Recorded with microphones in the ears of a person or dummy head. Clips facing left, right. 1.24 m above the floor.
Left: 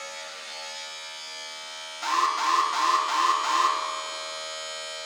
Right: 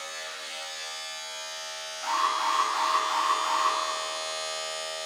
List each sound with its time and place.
0.0 s a machine running: 5° right (ahead or behind), 3 m
2.0 s an alarm: 60° left (ahead or behind), 1.4 m